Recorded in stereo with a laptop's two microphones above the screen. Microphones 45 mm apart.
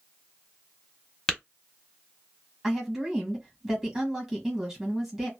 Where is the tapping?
15° left (ahead or behind), 1.2 m.